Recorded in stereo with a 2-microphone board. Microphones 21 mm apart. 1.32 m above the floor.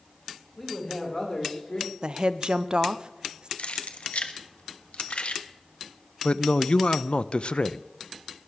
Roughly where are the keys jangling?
Left.